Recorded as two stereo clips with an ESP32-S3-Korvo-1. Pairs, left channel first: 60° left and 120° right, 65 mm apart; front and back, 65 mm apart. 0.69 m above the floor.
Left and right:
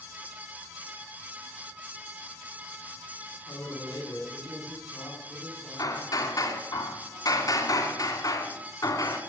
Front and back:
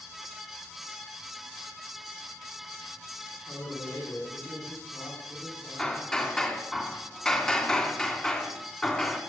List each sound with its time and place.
3.5 s a man speaking: 35° left, 7.5 m
5.8 s hammering: 75° left, 2.5 m